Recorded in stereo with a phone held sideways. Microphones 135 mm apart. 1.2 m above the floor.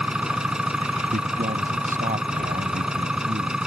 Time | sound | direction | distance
0.0 | an engine running | 5° right (ahead or behind) | ?
1.1 | a man speaking | 85° right | ?